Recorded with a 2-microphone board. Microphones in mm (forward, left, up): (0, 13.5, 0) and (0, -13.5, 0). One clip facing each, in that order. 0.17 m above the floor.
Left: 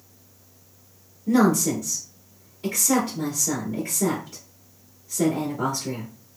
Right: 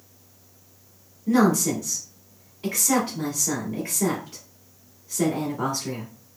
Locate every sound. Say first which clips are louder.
1.3 s a woman speaking: even; 25° right (ahead or behind), 1.7 m